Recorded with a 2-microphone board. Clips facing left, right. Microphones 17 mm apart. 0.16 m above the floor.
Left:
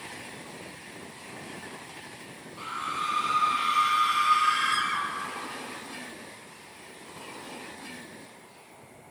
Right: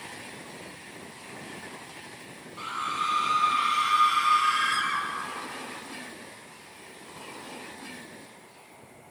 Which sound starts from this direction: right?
A scream, at 2.6 s.